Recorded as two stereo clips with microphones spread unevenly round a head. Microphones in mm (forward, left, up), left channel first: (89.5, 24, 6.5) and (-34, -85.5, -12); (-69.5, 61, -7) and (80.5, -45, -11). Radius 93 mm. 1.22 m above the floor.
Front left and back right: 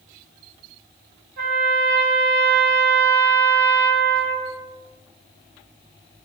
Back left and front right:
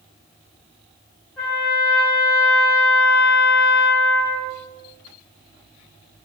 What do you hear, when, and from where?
1.4 s a trumpet: 130° right, 1.2 m